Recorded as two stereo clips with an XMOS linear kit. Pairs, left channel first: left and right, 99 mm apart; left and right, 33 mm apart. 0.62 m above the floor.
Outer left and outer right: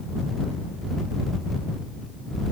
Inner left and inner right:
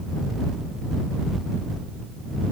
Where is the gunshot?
I don't hear a gunshot.